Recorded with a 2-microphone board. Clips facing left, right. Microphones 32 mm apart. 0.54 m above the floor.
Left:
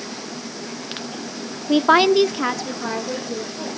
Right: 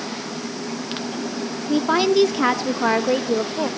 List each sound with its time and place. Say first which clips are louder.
1.7 s a woman speaking: left 4 dB; 45° left (ahead or behind), 0.8 m; by 3.7 s 60° right (ahead or behind), 1.6 m